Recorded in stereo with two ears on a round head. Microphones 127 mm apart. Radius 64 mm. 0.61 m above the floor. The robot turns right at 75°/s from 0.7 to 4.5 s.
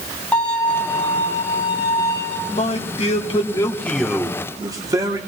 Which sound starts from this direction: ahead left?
A man speaking, at 2.5 s.